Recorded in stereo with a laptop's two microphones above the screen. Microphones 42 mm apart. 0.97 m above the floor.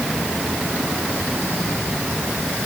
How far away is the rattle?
No rattle in this recording.